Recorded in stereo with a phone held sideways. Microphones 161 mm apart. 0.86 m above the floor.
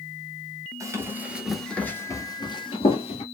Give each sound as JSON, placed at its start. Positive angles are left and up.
{"t": 0.8, "sound": "running footsteps", "side_deg": -20, "distance_m": 1.0}